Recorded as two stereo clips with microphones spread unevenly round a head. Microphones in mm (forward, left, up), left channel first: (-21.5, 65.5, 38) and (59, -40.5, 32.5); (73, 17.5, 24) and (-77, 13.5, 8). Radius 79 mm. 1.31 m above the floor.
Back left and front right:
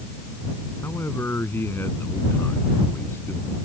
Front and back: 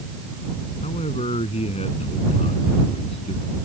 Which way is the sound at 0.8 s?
55° left.